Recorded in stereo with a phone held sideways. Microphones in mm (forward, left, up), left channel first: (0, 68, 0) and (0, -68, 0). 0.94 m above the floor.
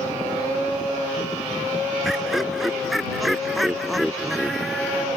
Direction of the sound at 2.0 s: Centre (ahead or behind).